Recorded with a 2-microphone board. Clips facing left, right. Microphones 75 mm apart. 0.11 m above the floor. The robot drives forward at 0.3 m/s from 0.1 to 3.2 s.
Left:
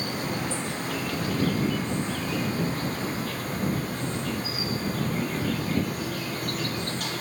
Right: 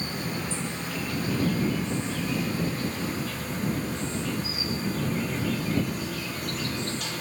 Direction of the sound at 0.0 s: 65° left (ahead or behind).